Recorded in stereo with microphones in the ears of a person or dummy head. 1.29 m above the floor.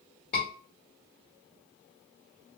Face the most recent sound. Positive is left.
turn(degrees=45)  # may be behind; listen again after turning